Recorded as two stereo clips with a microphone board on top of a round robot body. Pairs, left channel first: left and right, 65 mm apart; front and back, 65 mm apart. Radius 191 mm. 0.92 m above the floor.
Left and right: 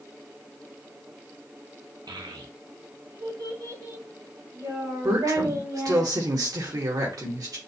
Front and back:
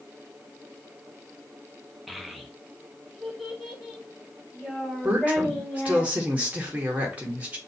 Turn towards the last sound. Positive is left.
turn(degrees=-110)